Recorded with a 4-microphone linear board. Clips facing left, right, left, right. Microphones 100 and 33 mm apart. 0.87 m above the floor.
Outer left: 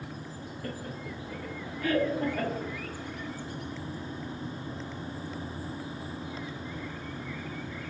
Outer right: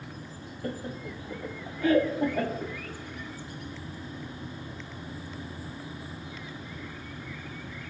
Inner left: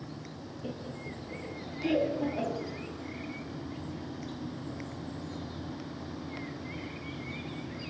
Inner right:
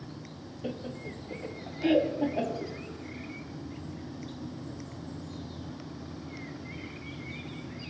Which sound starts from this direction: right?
Laughter, at 0.6 s.